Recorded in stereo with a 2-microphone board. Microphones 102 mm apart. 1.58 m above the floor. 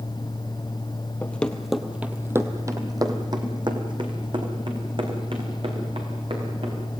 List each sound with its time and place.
1.2 s running footsteps: 15° left (ahead or behind), 1.7 m; by 6.8 s 65° right (ahead or behind), 7 m